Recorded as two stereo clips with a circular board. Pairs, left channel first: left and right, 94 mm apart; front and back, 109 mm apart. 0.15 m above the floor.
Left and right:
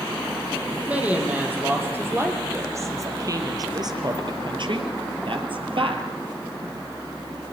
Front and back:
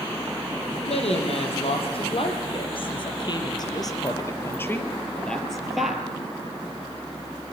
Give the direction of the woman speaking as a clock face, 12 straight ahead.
1 o'clock.